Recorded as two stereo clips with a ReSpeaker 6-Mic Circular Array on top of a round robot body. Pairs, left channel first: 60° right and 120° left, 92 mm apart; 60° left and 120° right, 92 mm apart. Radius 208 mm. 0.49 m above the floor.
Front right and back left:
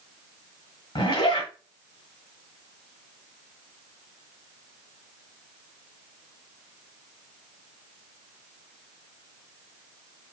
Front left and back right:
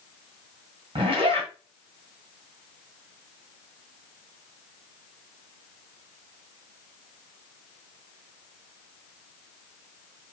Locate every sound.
0.9 s a zipper: 95° right, 2.5 m